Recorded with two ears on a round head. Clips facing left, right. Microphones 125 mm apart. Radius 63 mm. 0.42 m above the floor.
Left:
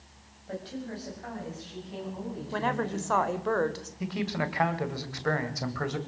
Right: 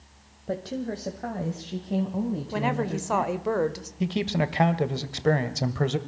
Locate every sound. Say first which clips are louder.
0.5 s a woman speaking: right 7 dB; 55° right (ahead or behind), 1.9 m; by 3.3 s 65° right (ahead or behind), 3.5 m
2.5 s a woman speaking: even; 15° right (ahead or behind), 1.3 m
4.0 s a man speaking: right 5 dB; 30° right (ahead or behind), 1.9 m